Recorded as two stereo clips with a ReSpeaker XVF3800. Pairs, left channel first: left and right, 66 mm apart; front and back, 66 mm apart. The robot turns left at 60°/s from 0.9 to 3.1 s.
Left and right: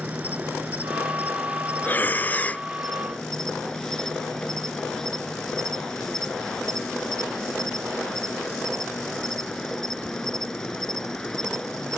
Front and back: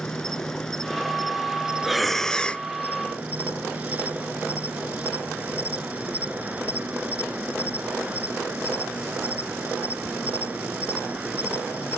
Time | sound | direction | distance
0.0 | an insect | 70° right | ?
1.8 | breathing | 100° left | ?